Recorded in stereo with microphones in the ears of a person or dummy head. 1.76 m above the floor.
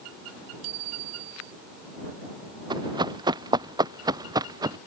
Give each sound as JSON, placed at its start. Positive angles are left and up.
{"t": 0.6, "sound": "a bicycle bell", "side_deg": -85}
{"t": 2.7, "sound": "running footsteps", "side_deg": -30}